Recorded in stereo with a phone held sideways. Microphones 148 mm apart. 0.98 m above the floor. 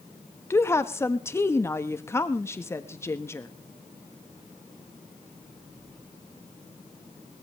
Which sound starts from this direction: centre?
A woman speaking, at 0.5 s.